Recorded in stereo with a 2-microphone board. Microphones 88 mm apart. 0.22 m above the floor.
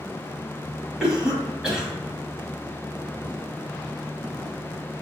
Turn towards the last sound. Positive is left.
turn(degrees=-5)  # may be behind; listen again after turning